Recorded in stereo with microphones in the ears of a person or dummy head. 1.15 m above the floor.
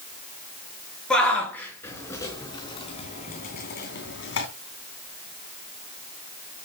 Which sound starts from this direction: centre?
A shout, at 1.1 s.